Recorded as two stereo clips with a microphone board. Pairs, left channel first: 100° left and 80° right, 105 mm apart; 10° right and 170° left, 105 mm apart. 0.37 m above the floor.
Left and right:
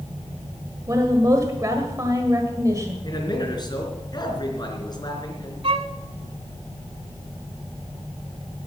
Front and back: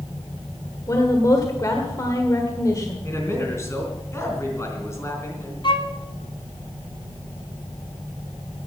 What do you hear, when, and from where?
0.9 s a woman speaking: 45° right, 1.5 m
3.0 s a man speaking: 55° left, 4 m
5.6 s a violin: 50° right, 1.3 m